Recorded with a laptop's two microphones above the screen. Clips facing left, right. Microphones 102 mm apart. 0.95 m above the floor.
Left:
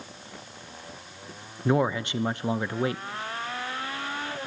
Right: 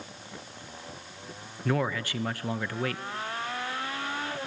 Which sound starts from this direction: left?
A man speaking, at 1.6 s.